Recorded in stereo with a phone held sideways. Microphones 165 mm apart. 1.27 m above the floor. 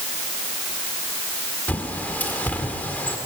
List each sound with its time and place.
1.7 s a bird: 10° left (ahead or behind), 1.8 m